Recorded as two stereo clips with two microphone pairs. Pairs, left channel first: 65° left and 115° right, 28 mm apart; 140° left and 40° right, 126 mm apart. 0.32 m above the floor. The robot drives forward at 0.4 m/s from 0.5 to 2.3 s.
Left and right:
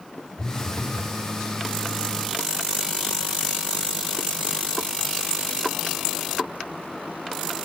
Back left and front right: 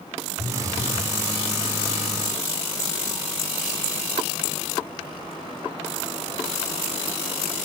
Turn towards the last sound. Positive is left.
turn(degrees=135)